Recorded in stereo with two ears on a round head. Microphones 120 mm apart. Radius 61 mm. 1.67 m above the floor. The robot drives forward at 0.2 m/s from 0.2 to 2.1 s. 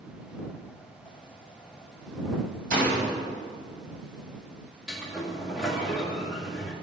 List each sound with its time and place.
2.7 s a door slam: 75° right (ahead or behind), 6 m
4.9 s a sliding door: centre (ahead or behind), 2.5 m